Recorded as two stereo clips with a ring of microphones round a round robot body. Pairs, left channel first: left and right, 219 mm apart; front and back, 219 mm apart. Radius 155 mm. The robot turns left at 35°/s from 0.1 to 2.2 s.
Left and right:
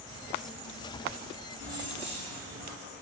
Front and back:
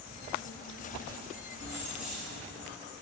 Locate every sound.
1.6 s keys jangling: 15° right, 5.5 m; by 2.7 s 35° right, 5.5 m